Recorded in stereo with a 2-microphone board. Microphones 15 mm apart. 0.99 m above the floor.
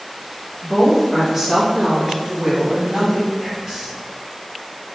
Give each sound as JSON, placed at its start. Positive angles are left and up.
{"t": 0.6, "sound": "a woman speaking", "side_deg": 10, "distance_m": 1.2}
{"t": 3.4, "sound": "whispering", "side_deg": -30, "distance_m": 1.1}